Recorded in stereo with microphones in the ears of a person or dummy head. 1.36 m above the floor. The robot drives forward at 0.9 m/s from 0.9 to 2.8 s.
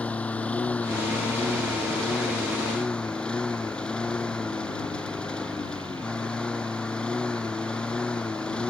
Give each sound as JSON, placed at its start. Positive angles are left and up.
{"t": 0.0, "sound": "a lawn mower", "side_deg": 5}